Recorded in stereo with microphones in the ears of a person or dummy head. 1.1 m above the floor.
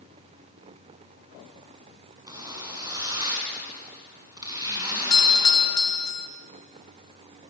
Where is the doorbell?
20° left (ahead or behind), 0.8 m.